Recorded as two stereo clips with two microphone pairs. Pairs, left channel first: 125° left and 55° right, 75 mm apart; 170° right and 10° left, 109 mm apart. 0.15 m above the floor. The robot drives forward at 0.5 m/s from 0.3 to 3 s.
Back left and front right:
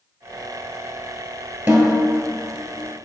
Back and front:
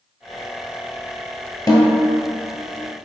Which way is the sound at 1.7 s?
120° right.